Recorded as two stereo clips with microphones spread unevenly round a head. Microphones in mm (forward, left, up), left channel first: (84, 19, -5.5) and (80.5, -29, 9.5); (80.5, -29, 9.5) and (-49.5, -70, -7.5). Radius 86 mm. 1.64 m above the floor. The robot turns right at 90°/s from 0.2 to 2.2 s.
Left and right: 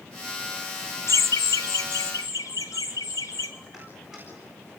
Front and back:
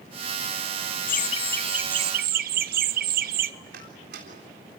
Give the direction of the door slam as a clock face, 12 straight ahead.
6 o'clock.